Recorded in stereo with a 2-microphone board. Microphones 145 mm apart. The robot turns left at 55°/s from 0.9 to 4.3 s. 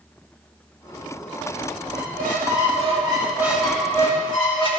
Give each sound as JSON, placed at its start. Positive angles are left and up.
{"t": 1.9, "sound": "a squeak", "azimuth_deg": -85, "distance_m": 2.0}